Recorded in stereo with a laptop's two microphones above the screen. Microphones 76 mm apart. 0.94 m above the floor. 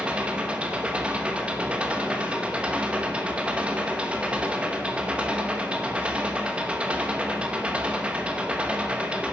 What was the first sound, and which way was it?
An engine running, 15° right (ahead or behind).